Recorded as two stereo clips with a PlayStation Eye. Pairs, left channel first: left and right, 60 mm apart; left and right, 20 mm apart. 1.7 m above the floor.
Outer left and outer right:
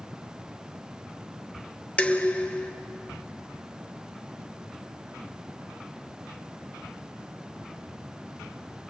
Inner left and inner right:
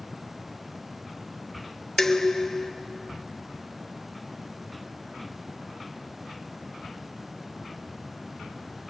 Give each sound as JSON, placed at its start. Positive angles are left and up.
{"t": 2.0, "sound": "dishes clattering", "side_deg": 25, "distance_m": 0.8}